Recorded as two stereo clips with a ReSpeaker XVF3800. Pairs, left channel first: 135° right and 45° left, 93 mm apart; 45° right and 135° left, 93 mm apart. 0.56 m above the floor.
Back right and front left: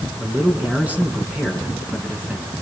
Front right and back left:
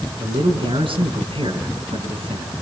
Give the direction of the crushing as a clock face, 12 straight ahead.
No crushing in this recording.